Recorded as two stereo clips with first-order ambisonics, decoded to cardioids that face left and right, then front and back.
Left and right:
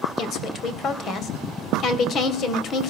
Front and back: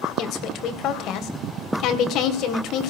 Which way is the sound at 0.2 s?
40° left.